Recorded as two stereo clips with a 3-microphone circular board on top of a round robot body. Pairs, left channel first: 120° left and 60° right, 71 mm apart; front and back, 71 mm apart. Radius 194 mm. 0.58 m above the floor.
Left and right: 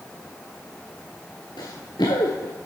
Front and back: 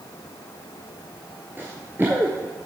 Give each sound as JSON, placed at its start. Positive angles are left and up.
{"t": 1.6, "sound": "running footsteps", "azimuth_deg": 115, "distance_m": 0.6}